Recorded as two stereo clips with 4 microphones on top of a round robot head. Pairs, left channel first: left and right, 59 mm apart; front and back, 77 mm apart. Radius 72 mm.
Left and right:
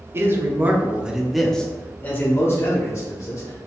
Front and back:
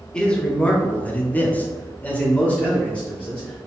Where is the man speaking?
75° right, 1.1 m; by 3.7 s 75° left, 1.7 m.